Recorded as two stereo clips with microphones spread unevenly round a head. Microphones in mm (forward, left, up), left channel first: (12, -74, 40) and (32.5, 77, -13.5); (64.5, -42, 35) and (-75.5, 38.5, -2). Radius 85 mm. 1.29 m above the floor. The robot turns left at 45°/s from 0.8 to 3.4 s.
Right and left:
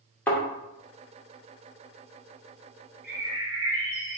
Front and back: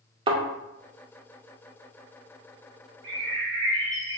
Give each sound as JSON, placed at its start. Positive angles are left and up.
{"t": 0.3, "sound": "a thud", "azimuth_deg": -145, "distance_m": 0.7}
{"t": 3.0, "sound": "a bird", "azimuth_deg": -175, "distance_m": 2.0}